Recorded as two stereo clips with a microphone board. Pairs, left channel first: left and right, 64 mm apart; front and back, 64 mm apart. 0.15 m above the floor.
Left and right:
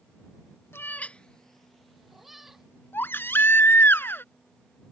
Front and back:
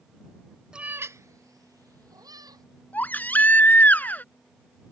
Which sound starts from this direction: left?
A cat meowing, at 0.7 s.